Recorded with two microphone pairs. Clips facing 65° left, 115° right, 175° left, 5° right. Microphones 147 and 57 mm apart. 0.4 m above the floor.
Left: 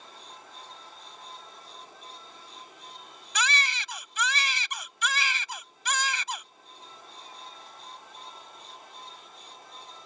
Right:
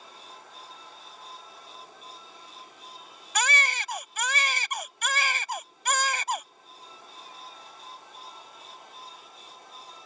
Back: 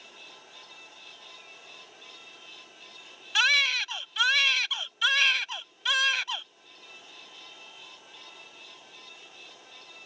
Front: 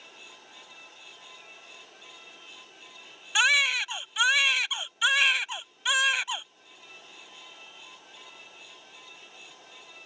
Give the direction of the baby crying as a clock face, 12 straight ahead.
3 o'clock.